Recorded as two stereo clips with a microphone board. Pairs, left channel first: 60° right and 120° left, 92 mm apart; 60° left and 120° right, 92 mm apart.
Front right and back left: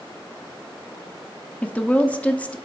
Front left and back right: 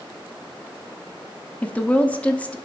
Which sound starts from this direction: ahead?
A woman speaking, at 1.6 s.